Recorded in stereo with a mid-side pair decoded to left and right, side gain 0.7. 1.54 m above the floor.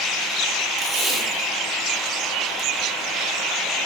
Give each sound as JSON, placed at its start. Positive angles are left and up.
{"t": 0.8, "sound": "tape being pulled", "azimuth_deg": -15, "distance_m": 0.9}